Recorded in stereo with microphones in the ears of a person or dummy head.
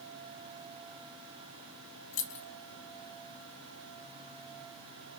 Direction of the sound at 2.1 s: 70° left (ahead or behind).